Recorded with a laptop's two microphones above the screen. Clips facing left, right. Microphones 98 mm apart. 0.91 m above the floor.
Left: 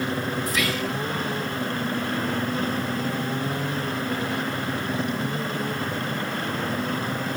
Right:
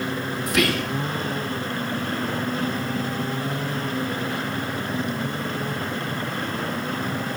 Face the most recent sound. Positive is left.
turn(degrees=-65)  # may be behind; listen again after turning